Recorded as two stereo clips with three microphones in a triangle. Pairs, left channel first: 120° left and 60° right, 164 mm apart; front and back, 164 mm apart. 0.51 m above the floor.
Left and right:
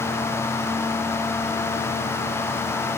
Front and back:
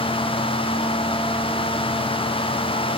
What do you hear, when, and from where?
Only background noise.